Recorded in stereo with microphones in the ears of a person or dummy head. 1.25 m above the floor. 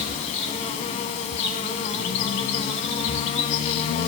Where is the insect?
40° left (ahead or behind), 1.6 m.